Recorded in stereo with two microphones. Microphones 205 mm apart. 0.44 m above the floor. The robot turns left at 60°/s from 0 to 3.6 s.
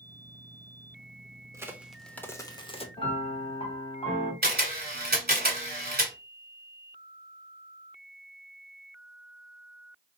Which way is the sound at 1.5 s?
155° right.